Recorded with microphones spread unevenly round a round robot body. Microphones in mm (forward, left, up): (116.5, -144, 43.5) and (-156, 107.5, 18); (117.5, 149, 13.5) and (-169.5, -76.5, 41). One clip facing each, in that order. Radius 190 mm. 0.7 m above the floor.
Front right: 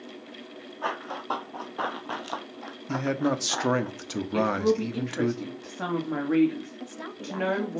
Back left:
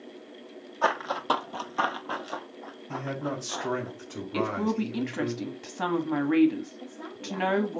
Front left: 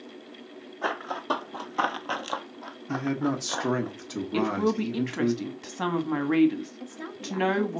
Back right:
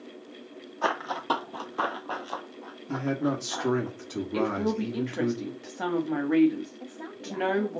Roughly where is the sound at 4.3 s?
Left.